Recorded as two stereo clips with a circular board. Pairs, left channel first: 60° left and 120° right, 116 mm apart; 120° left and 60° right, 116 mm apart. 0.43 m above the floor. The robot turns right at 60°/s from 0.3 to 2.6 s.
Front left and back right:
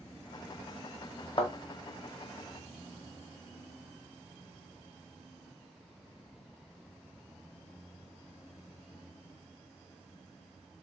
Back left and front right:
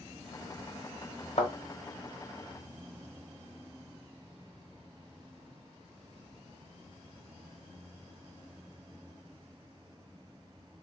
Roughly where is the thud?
Left.